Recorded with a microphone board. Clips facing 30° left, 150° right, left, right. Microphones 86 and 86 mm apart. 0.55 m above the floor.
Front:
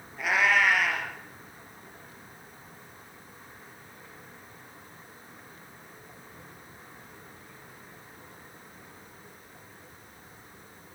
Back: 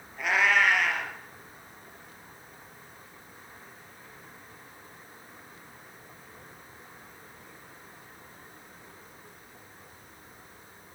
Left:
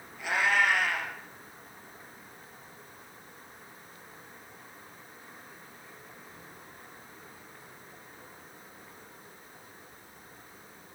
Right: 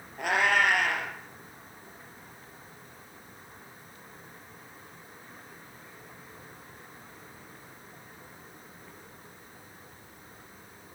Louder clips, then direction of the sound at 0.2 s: Even, right 2 dB; 60° right.